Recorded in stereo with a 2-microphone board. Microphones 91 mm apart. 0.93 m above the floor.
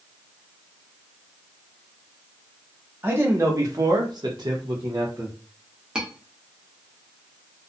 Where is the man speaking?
25° right (ahead or behind), 1.0 m; by 5.3 s 40° right (ahead or behind), 1.0 m.